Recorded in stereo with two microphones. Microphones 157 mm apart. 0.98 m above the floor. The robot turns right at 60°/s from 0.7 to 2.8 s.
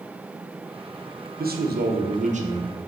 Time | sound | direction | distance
1.4 | a man speaking | 110° right | 0.6 m